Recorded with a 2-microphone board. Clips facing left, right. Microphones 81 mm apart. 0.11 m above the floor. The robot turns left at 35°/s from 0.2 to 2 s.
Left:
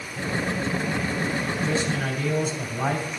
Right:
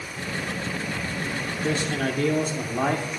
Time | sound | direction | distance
1.6 | a man speaking | 55° right (ahead or behind) | 3.5 m